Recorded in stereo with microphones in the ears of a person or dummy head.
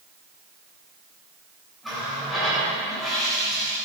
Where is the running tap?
Centre (ahead or behind), 5 m.